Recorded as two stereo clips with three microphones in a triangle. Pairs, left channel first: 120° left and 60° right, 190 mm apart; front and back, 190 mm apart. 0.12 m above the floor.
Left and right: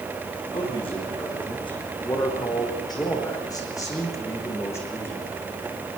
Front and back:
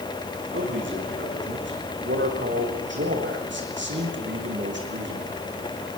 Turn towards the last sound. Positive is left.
turn(degrees=-160)